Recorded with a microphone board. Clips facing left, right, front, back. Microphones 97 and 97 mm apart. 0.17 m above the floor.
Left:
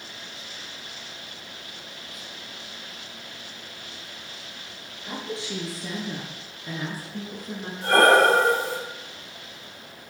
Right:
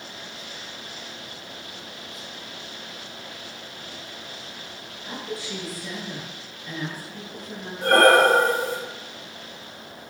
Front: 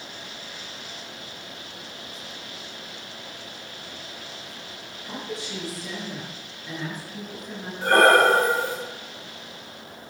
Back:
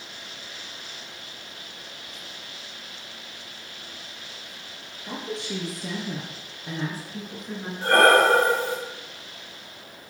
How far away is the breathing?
About 2.5 m.